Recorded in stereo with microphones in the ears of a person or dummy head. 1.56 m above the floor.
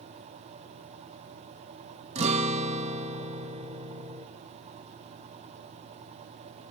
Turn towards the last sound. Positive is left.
turn(degrees=-30)  # may be behind; listen again after turning